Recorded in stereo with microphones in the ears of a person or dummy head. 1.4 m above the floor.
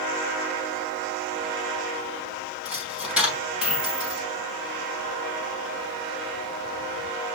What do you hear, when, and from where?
2.6 s a dropped coin: 5° right (ahead or behind), 2.5 m